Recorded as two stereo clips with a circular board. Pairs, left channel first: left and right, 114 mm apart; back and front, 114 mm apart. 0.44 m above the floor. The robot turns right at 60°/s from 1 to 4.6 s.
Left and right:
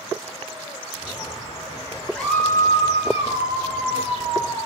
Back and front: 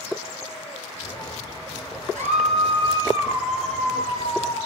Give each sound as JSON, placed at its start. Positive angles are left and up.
{"t": 2.1, "sound": "a scream", "azimuth_deg": 5, "distance_m": 8.0}